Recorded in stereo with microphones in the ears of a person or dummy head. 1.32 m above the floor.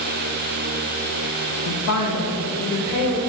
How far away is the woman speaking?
About 0.7 m.